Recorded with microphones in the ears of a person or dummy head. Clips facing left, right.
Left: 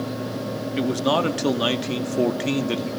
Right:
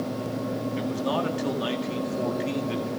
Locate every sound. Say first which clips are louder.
0.8 s a man speaking: left 8 dB; 65° left (ahead or behind), 1.9 m